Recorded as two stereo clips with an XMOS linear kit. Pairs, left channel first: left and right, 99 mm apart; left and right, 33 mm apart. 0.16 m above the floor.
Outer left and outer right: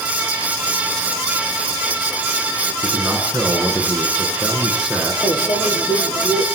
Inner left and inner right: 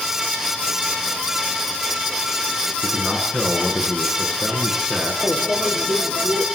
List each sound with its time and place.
2.8 s a man speaking: 5° right (ahead or behind), 8.5 m
5.2 s a microwave: 50° left (ahead or behind), 5 m